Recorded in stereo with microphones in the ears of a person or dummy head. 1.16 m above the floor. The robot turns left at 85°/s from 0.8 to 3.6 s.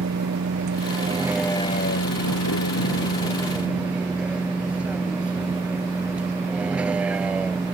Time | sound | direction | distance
0.0 | a vehicle | 130° right | ?